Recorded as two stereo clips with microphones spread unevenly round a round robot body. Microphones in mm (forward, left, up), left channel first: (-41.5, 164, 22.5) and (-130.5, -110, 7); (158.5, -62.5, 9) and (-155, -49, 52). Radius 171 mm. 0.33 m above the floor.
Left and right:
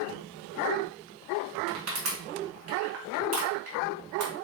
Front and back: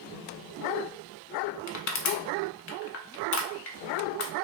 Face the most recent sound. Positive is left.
turn(degrees=-55)